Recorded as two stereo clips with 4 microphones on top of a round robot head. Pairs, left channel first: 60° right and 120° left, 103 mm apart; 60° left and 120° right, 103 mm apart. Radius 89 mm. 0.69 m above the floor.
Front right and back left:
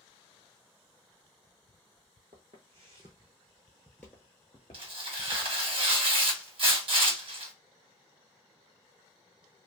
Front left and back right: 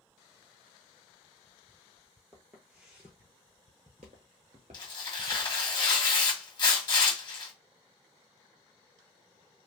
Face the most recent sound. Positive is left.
turn(degrees=100)